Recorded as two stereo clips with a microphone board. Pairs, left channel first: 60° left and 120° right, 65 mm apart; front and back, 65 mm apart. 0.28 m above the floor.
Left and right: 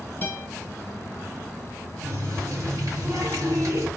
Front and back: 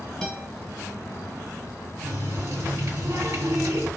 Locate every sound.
0.2 s a guitar: 80° left, 1.4 m
2.0 s a running tap: 145° right, 1.7 m